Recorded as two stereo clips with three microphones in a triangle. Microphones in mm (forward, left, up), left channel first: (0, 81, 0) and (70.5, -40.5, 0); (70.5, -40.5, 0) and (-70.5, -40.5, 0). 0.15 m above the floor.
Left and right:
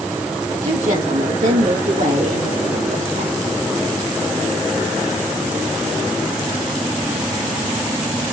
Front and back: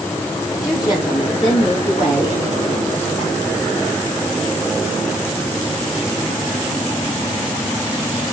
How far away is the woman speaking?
About 3.5 m.